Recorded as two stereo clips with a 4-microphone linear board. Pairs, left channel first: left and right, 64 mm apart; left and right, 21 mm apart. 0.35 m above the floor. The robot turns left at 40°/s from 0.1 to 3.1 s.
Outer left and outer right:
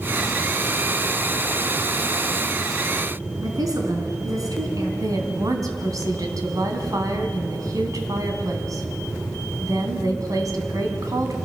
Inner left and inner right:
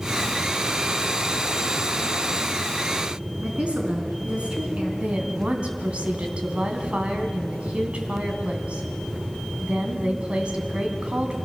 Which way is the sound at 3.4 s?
65° right (ahead or behind).